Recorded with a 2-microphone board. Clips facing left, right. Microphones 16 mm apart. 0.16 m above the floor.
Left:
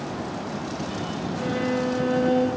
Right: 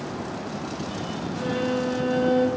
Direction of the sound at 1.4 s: 10° right (ahead or behind).